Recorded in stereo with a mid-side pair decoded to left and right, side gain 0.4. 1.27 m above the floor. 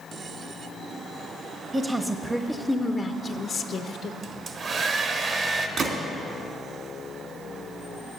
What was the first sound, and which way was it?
A woman speaking, 30° right.